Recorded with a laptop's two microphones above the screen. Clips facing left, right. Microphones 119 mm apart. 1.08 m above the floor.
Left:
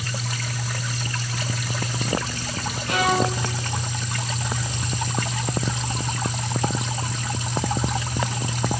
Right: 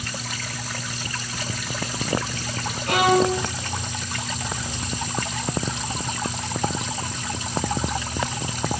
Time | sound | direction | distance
2.9 | a violin | 60° right (ahead or behind) | 2.5 m